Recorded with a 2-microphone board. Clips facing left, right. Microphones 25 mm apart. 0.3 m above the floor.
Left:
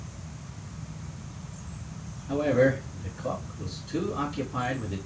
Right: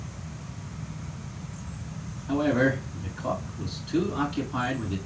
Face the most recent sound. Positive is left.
turn(degrees=-40)  # may be behind; listen again after turning